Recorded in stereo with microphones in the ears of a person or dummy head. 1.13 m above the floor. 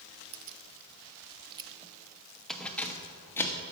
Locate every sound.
0.3 s keys jangling: 75° right (ahead or behind), 0.7 m; by 3.6 s 15° left (ahead or behind), 1.4 m